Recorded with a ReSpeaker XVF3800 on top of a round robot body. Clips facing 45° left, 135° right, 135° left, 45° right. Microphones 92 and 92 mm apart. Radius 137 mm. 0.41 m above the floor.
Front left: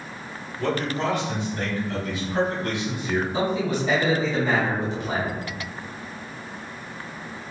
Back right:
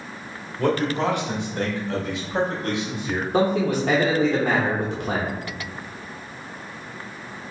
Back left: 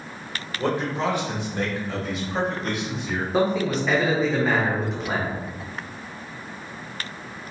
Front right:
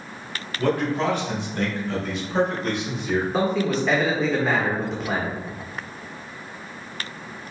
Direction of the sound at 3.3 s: 135° right.